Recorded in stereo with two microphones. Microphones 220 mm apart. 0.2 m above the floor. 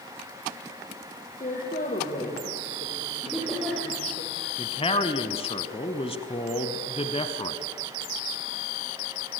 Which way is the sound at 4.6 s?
25° left (ahead or behind).